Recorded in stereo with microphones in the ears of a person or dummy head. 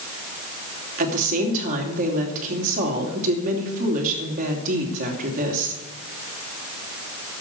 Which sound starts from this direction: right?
A woman speaking, at 1.0 s.